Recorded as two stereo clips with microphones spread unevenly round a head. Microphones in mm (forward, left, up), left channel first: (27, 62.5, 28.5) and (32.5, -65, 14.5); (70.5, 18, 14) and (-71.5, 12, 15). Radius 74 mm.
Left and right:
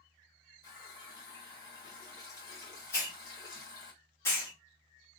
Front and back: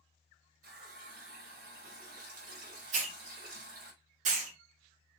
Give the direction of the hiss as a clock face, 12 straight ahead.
7 o'clock.